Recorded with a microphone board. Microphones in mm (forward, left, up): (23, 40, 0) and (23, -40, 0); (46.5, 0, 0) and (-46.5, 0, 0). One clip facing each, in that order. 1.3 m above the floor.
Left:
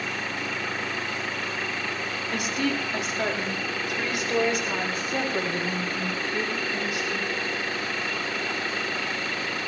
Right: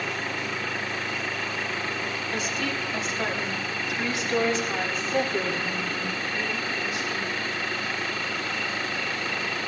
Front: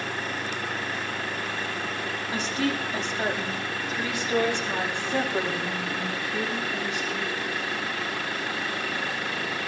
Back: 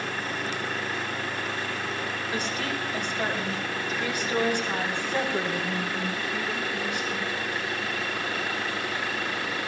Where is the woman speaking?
65° left, 5.5 m; by 7.3 s 70° left, 11.5 m.